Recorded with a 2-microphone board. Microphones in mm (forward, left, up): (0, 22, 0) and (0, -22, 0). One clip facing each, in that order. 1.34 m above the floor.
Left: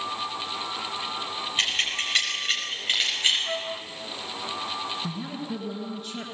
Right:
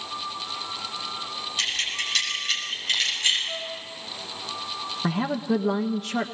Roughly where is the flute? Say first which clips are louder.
Left 2 dB; left.